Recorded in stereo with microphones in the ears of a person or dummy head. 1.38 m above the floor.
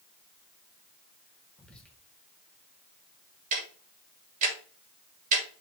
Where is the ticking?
45° right (ahead or behind), 3.5 m.